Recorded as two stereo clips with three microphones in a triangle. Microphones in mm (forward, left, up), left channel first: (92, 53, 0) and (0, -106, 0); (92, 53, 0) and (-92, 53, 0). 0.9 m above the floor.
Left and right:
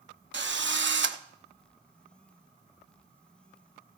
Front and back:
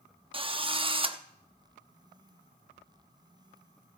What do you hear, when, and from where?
0.3 s a drill: 120° right, 0.6 m